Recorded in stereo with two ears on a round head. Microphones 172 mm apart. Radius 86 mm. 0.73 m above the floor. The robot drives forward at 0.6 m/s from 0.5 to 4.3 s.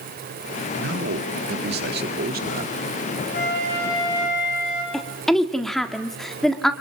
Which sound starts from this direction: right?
A man speaking, at 0.8 s.